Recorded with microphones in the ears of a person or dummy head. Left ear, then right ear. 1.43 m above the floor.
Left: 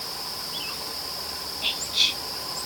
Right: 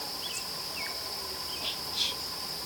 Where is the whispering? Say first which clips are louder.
Left 9 dB; 25° left (ahead or behind), 1.4 m.